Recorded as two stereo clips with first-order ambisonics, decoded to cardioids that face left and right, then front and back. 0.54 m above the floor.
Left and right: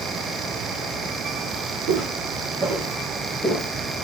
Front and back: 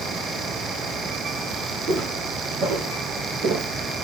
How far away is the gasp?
No gasp in this recording.